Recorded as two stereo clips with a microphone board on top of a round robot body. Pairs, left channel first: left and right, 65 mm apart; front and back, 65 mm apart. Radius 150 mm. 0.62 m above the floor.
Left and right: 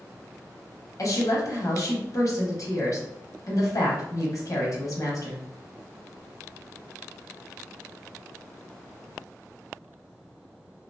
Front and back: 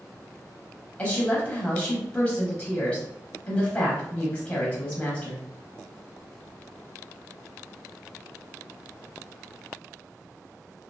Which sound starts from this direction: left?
A woman speaking, at 1.0 s.